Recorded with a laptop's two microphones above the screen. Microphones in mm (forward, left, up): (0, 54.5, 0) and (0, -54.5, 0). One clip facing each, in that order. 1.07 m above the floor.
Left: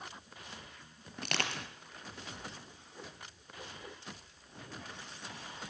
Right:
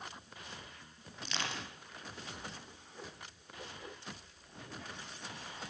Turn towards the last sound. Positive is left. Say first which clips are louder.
# left 3 dB
turn(degrees=65)  # may be behind; listen again after turning